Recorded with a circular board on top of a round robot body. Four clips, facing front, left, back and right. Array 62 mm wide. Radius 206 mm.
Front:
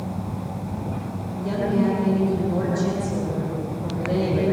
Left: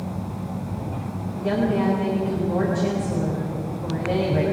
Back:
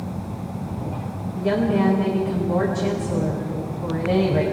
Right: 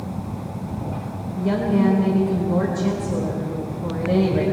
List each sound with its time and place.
1.4 s a woman speaking: 145° left, 8 m